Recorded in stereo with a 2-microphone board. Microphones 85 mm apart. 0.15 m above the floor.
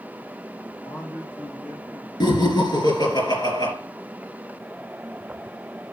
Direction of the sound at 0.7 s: 50° left (ahead or behind).